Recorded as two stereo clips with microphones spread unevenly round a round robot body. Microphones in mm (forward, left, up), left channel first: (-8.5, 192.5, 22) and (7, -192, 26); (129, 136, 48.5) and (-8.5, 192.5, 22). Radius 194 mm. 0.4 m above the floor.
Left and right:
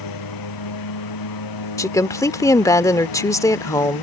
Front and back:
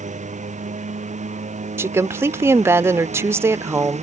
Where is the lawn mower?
125° left.